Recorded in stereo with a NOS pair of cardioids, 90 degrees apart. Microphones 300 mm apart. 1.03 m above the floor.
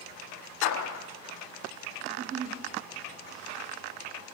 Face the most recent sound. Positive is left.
turn(degrees=-55)